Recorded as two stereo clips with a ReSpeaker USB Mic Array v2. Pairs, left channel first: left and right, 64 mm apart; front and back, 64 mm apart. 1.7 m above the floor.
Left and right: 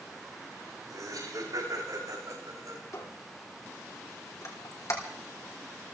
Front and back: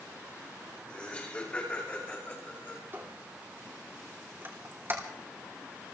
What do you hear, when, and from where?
0.9 s laughter: 70° right, 7.5 m; by 2.8 s 55° right, 6 m
2.9 s a squeak: 125° left, 3 m